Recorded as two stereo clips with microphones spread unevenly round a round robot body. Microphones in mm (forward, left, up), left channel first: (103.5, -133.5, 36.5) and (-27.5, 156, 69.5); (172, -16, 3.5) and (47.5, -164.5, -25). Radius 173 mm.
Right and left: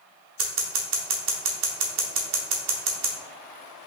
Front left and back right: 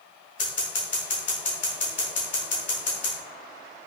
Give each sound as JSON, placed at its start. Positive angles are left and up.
{"t": 0.4, "sound": "scissors", "azimuth_deg": 90, "distance_m": 0.9}